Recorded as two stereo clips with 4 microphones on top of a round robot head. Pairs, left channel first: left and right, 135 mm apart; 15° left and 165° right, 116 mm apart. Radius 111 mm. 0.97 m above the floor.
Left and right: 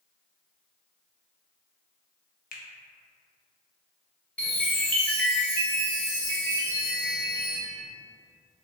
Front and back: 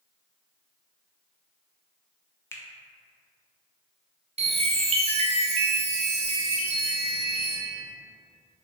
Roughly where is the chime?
Behind.